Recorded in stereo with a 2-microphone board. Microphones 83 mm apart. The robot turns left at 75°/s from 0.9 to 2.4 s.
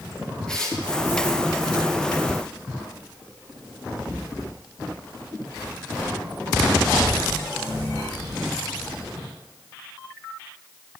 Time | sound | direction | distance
0.5 | tearing paper | 10° left (ahead or behind) | 5 m